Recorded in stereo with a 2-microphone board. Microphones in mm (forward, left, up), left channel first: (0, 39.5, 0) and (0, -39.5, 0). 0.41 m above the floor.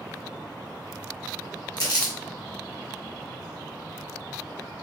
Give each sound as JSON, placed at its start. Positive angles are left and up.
{"t": 1.8, "sound": "crumpling", "side_deg": 60, "distance_m": 1.2}